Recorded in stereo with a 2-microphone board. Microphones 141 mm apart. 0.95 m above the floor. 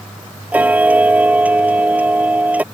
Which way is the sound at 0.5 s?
10° right (ahead or behind).